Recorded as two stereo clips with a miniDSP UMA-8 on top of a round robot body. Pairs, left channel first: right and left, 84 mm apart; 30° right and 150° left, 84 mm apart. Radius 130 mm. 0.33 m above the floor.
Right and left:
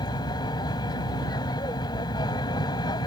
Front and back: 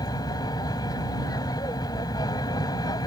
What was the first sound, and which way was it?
An aircraft, 65° right.